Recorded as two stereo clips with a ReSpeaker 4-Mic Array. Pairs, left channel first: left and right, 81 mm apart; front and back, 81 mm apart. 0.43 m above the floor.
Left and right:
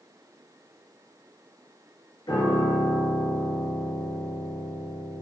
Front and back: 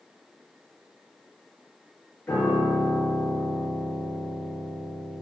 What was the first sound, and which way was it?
A piano, 60° left.